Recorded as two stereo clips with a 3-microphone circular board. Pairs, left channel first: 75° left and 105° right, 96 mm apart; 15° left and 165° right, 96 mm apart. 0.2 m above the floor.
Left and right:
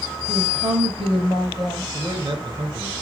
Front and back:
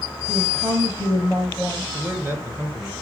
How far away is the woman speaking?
About 5 m.